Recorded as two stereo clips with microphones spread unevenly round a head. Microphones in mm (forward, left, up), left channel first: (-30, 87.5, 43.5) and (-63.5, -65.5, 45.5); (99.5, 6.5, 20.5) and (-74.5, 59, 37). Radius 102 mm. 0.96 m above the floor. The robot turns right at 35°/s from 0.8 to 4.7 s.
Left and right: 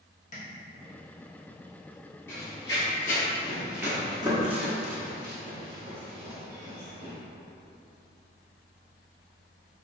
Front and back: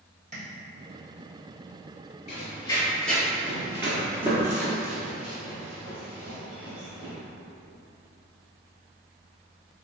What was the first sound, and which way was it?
Tapping, 110° left.